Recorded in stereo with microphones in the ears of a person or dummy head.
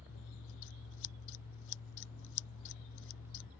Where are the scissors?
65° left (ahead or behind).